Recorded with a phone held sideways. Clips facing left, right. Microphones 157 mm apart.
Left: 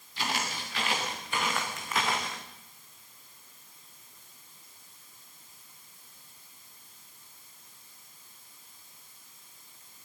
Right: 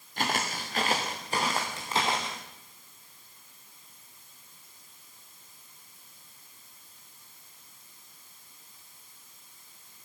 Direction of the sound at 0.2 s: 50° right (ahead or behind).